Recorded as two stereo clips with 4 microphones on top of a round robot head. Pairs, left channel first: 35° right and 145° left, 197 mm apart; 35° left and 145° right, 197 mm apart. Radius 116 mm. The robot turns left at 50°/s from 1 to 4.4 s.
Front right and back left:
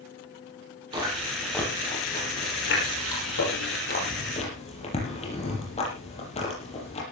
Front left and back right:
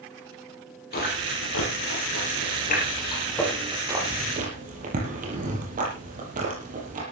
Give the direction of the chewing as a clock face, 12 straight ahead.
9 o'clock.